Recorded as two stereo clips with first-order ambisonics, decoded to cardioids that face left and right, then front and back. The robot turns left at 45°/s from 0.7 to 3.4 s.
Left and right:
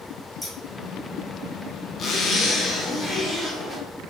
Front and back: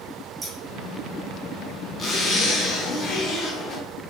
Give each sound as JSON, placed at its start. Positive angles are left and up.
{"t": 0.4, "sound": "scissors", "azimuth_deg": 180, "distance_m": 0.8}
{"t": 2.0, "sound": "a zipper", "azimuth_deg": 65, "distance_m": 0.7}